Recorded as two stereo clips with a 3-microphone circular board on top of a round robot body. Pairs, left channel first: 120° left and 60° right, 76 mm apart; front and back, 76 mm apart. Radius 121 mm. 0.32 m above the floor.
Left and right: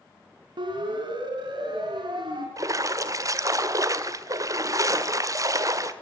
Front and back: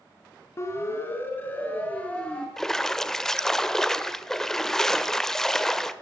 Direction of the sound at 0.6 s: 50° right.